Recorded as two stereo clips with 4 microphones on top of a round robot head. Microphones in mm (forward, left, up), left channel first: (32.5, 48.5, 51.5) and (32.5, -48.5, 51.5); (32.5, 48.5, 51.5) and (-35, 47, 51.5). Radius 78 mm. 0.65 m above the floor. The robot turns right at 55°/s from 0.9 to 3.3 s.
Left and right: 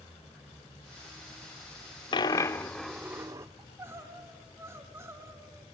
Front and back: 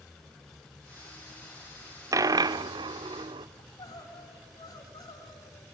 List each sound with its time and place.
2.1 s a dropped coin: 140° left, 0.6 m; by 3.5 s 155° right, 0.6 m
3.6 s crying: 25° right, 3.5 m